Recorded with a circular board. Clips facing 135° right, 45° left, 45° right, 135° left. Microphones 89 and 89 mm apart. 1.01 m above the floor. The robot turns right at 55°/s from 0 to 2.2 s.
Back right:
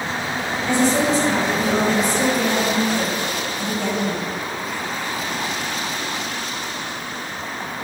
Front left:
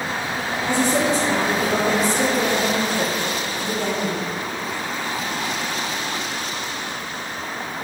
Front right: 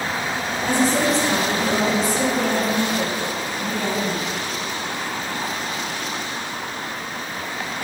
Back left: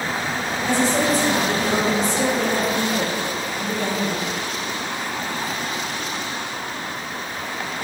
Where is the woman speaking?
10° right, 3 m; by 4.2 s 75° left, 3 m.